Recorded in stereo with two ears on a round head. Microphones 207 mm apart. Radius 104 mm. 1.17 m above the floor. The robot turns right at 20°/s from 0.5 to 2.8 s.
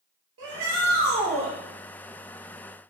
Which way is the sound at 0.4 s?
55° right (ahead or behind).